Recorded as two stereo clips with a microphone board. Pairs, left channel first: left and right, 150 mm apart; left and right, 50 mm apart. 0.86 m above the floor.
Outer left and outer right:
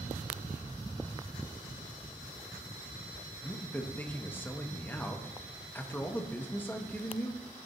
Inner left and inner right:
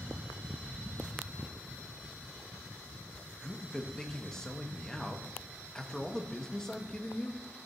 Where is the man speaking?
15° left (ahead or behind), 0.7 m.